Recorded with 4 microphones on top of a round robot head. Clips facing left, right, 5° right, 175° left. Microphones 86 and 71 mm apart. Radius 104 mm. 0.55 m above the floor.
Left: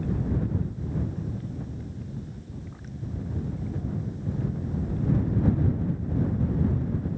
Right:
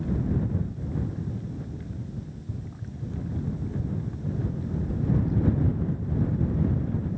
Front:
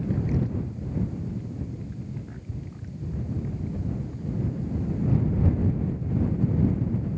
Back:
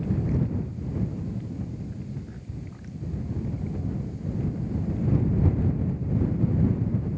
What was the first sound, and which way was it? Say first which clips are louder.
Running footsteps: even, even; 110° right.